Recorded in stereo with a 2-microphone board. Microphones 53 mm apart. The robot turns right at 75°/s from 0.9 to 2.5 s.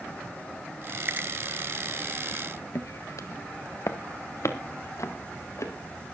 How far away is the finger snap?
About 1.6 m.